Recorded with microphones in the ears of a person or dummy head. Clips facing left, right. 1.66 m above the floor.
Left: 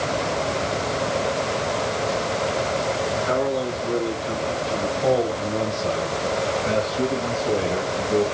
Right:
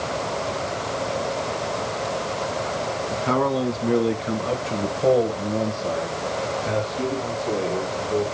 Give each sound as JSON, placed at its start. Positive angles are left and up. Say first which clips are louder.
{"t": 3.1, "sound": "a man speaking", "louder": "right 3 dB", "side_deg": -80, "distance_m": 3.0}